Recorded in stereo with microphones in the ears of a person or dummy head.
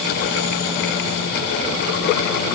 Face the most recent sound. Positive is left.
No sound to turn to.